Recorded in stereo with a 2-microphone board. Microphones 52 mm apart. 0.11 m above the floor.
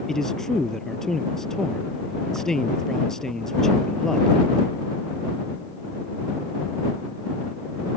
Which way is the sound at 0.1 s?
10° left (ahead or behind).